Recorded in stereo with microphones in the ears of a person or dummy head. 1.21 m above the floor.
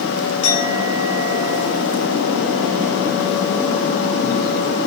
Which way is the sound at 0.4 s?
75° left (ahead or behind).